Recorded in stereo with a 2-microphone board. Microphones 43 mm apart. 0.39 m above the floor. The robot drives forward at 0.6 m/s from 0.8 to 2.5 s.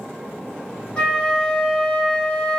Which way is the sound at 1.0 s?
30° left (ahead or behind).